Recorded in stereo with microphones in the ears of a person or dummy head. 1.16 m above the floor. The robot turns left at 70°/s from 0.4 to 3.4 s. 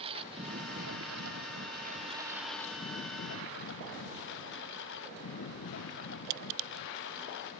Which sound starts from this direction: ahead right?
A lawn mower, at 0.0 s.